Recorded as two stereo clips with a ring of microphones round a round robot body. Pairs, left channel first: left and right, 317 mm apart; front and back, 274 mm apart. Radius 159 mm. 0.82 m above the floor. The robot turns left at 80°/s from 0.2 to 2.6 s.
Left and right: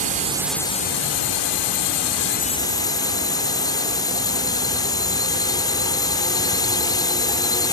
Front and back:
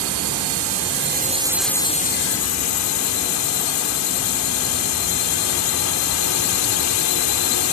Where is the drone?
155° right; by 7.7 s 10° left.